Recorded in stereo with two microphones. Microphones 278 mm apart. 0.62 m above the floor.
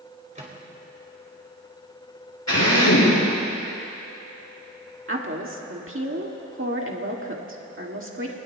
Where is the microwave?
25° right (ahead or behind), 2.5 m.